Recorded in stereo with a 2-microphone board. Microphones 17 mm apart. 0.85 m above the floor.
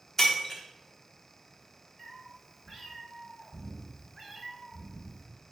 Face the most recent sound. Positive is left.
turn(degrees=-10)  # may be behind; listen again after turning